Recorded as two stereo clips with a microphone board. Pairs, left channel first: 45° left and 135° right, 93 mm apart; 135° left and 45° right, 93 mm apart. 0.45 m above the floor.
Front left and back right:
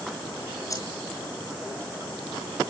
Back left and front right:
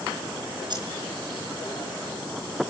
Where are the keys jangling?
10° right, 4.5 m.